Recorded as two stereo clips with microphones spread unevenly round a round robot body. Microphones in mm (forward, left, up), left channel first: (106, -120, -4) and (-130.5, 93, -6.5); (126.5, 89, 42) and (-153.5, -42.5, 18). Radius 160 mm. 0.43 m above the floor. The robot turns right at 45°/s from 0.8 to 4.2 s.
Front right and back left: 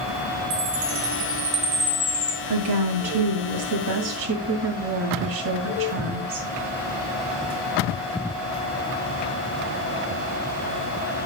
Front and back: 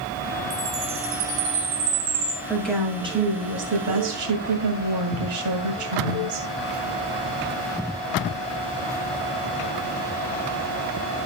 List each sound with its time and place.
0.5 s a chime: 175° left, 3 m; by 2.4 s 115° right, 3 m
2.5 s a woman speaking: 105° left, 2 m; by 6.5 s 175° right, 2 m